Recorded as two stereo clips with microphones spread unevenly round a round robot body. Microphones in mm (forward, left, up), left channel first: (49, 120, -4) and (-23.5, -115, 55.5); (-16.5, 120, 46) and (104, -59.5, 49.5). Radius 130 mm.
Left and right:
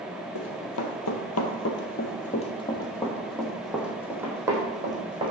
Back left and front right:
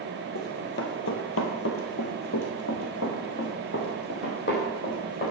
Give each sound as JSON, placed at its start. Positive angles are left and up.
{"t": 0.3, "sound": "running footsteps", "azimuth_deg": 85, "distance_m": 1.5}